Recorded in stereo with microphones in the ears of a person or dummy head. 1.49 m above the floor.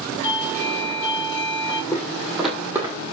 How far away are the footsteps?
About 2 m.